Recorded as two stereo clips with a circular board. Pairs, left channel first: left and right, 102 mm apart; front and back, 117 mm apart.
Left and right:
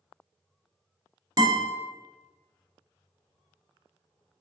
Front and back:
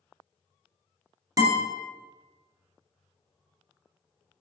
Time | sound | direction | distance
1.4 | a guitar | 130° right | 0.8 m